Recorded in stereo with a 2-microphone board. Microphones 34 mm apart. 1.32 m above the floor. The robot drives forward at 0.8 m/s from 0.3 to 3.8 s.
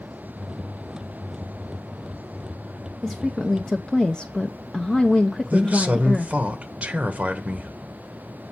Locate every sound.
3.0 s a woman speaking: 10° left (ahead or behind), 1.1 m; by 6.3 s 15° left (ahead or behind), 0.5 m
5.5 s a man speaking: 40° right (ahead or behind), 1.2 m